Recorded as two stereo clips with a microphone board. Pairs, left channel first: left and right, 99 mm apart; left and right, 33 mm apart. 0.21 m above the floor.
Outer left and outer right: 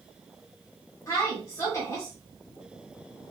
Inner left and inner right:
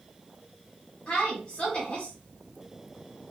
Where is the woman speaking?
35° left (ahead or behind), 1.4 m.